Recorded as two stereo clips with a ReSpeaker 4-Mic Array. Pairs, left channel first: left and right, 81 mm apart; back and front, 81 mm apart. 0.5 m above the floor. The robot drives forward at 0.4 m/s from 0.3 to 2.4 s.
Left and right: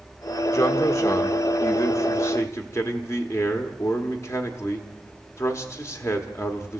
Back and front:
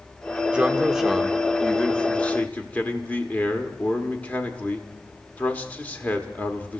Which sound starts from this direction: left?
A man speaking, at 0.5 s.